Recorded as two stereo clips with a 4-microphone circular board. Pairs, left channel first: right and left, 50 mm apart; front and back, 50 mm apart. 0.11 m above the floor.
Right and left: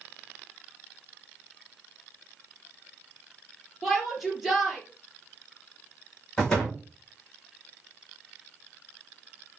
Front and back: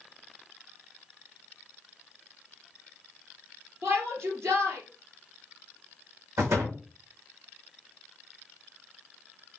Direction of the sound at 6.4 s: 165° right.